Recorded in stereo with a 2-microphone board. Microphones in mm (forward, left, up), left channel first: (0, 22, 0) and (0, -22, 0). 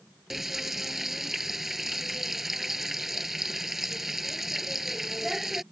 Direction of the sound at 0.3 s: 5° right (ahead or behind).